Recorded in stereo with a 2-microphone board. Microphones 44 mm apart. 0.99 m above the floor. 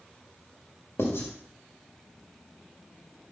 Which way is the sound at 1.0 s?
75° left (ahead or behind).